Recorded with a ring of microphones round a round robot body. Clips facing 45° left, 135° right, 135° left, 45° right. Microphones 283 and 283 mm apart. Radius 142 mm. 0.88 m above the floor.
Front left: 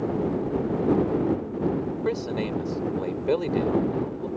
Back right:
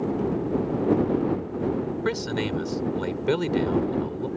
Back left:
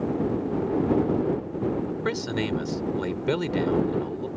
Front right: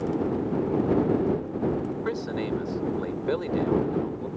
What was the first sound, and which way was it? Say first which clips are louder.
A man speaking: even, back left 1 dB; 170° left.